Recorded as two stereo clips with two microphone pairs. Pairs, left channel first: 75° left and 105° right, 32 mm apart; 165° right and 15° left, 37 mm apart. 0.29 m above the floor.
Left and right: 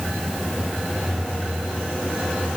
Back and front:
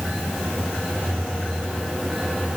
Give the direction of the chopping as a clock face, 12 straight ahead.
No chopping in this recording.